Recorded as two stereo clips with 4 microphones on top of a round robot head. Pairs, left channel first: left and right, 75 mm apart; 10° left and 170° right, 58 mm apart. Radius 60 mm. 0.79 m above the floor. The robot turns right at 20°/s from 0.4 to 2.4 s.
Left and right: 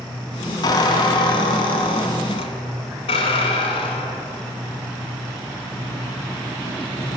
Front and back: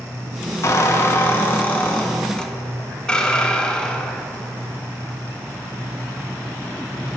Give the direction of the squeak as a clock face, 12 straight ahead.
10 o'clock.